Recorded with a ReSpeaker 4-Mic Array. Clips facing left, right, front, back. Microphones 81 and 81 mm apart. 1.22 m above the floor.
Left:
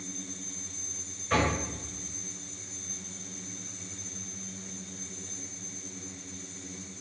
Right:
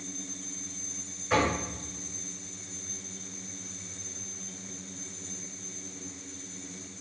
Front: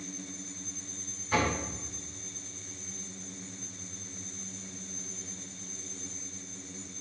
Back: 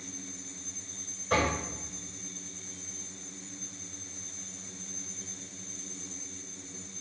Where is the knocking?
175° right, 5 m.